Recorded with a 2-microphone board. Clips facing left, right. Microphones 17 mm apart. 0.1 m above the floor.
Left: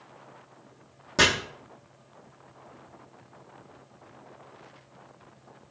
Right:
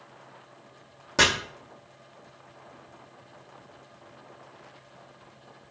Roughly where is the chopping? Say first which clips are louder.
Even; centre.